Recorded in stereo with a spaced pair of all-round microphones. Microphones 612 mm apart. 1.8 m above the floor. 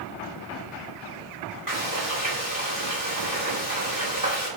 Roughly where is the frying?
Left.